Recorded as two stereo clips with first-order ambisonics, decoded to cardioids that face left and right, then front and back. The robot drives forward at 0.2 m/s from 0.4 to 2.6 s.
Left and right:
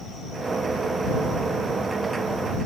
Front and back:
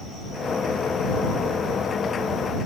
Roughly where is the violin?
I don't hear a violin.